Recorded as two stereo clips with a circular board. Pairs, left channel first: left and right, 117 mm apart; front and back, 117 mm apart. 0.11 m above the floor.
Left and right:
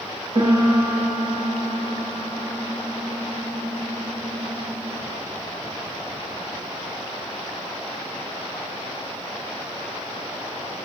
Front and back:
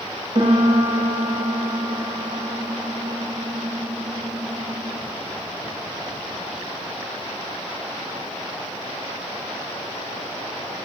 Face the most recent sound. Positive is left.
turn(degrees=-140)